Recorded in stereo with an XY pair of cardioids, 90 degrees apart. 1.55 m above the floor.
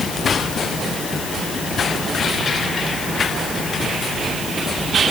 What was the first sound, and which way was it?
Only background noise.